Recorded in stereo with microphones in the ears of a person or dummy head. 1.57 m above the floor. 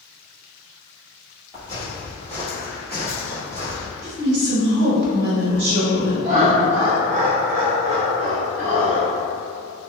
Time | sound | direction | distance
1.5 | footsteps | 5° right (ahead or behind) | 1.6 m
4.0 | a woman speaking | 60° right (ahead or behind) | 0.9 m
6.2 | laughter | 35° right (ahead or behind) | 0.6 m